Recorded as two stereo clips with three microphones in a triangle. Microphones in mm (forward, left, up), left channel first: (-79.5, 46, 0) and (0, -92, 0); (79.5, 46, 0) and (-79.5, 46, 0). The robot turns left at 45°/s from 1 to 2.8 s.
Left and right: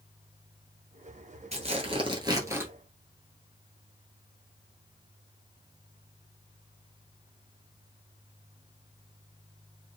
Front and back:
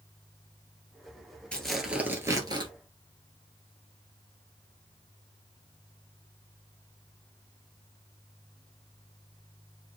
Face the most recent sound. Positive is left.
turn(degrees=-140)